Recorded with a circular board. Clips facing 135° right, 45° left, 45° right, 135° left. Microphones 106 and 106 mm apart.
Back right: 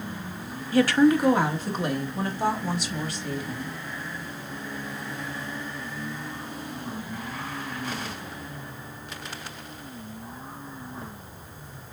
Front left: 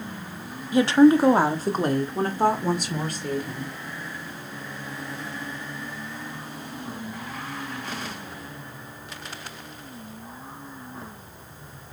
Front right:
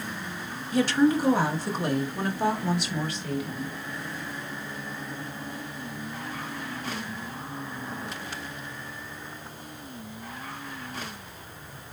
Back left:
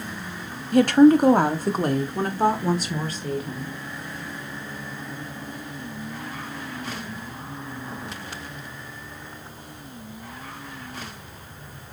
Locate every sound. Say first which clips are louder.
0.7 s a woman speaking: front left 3 dB, back left 8 dB; 115° left, 0.9 m; by 3.7 s 85° left, 3 m